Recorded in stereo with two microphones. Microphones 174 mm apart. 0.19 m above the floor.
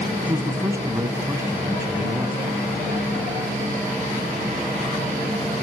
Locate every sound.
0.2 s a man speaking: 20° right (ahead or behind), 1.3 m